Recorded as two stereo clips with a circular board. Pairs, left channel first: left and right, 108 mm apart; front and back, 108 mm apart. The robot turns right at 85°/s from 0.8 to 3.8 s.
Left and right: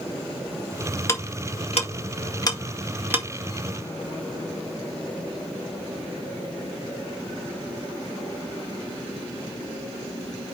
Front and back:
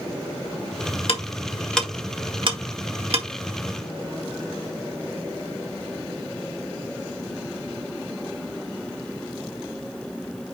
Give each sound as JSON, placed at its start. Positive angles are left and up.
{"t": 1.1, "sound": "ticking", "azimuth_deg": 25, "distance_m": 1.8}